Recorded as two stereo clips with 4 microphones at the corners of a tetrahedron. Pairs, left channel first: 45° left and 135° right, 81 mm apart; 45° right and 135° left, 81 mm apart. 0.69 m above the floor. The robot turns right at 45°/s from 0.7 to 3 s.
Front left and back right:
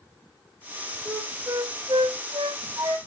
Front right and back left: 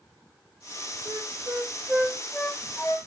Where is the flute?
170° left, 1.7 m; by 3.0 s 100° right, 1.7 m.